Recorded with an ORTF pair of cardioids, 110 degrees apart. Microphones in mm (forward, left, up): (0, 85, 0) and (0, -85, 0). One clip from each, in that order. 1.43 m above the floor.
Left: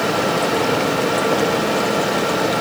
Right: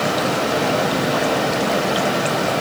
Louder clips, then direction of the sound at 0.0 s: Left 1 dB; 55° left.